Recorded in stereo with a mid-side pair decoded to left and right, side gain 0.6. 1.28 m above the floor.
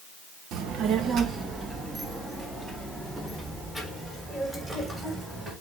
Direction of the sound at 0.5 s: 60° right.